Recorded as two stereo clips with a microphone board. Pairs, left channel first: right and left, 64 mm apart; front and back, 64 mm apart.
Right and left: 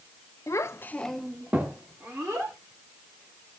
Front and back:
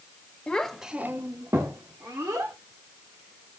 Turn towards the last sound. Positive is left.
turn(degrees=140)